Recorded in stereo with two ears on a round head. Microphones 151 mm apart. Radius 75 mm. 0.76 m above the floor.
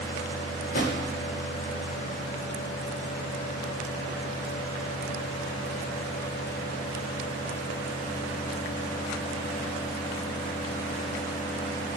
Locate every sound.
0.6 s a drawer: 50° left (ahead or behind), 1.1 m